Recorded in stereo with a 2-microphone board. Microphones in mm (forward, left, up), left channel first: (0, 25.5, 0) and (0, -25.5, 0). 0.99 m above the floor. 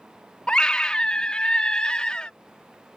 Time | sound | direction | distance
0.5 | a scream | 15° left (ahead or behind) | ?